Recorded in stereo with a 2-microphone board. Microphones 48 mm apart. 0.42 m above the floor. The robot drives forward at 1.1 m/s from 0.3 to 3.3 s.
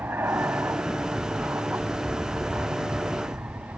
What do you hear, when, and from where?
0.0 s an aircraft: 55° right (ahead or behind); by 3.8 s 50° right (ahead or behind)